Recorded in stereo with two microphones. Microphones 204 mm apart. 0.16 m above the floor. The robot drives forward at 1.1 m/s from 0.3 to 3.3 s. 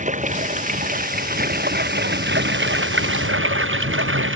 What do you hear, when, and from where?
0.0 s running water: 40° right (ahead or behind); by 4.4 s 80° right